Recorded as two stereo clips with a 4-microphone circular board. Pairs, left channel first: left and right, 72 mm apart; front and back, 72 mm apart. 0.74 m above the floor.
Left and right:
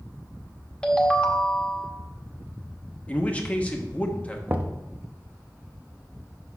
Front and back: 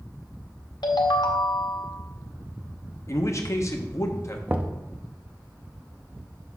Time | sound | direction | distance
0.8 | a ringtone | 15° left | 1.0 m
3.1 | a man speaking | 25° left | 0.9 m
4.5 | knocking | 135° right | 0.6 m